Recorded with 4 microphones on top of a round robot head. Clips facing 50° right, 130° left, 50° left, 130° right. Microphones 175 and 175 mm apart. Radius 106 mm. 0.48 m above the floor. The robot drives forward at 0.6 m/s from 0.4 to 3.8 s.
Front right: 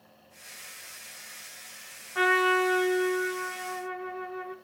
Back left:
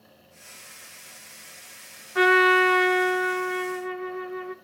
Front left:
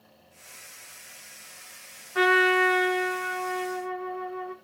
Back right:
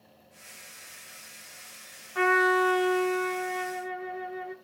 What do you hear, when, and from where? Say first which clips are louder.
2.1 s a trumpet: back left 6 dB, front left 2 dB; 95° left, 0.6 m; by 4.5 s 155° left, 1.2 m